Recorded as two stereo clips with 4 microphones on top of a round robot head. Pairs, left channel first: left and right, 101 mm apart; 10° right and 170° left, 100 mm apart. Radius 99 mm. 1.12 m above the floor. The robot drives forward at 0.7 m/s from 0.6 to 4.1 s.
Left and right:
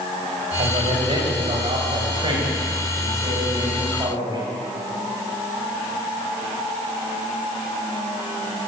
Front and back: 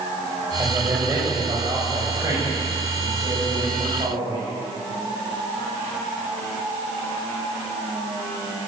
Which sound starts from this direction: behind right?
A man speaking, at 0.6 s.